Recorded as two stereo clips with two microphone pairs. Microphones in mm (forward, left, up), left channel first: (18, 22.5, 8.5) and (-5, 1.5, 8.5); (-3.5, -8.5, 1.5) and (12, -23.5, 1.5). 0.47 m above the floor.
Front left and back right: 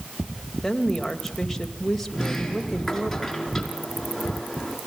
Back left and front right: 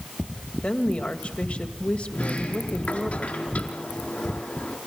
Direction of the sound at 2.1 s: 135° left.